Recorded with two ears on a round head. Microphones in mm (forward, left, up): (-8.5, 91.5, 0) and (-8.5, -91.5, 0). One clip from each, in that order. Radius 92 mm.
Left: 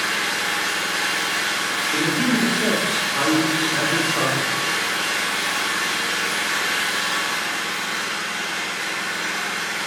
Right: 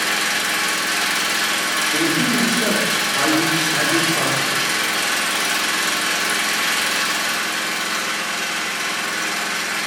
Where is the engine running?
60° right (ahead or behind), 1.0 m.